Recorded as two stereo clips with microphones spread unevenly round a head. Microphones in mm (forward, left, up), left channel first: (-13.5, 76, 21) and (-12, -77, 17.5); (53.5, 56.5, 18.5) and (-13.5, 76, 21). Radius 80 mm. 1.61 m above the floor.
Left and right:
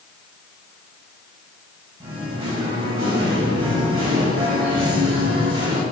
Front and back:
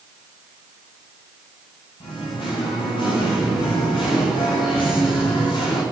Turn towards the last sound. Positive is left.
turn(degrees=-30)